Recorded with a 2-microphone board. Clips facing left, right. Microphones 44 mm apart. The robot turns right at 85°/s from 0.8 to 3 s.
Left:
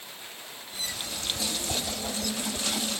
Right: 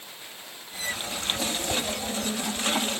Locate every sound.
1.7 s a whoosh: 20° right (ahead or behind), 2 m; by 2.9 s 75° left (ahead or behind), 2 m